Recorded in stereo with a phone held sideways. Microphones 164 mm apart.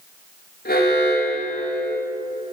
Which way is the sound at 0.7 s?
85° left.